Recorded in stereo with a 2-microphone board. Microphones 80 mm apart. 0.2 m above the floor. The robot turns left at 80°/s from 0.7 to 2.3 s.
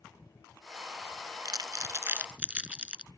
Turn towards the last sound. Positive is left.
turn(degrees=-15)  # may be behind; listen again after turning